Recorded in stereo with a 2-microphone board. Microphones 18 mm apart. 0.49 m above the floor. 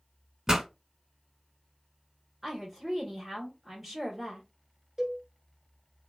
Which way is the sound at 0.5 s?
20° right (ahead or behind).